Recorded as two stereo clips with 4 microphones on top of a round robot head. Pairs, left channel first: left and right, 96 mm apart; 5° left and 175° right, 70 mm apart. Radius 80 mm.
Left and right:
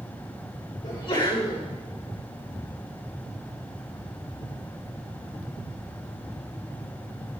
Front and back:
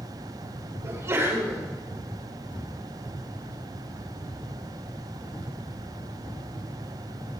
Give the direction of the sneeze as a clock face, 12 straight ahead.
7 o'clock.